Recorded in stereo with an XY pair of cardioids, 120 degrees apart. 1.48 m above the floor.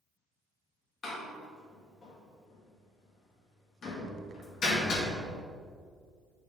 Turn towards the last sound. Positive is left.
turn(degrees=45)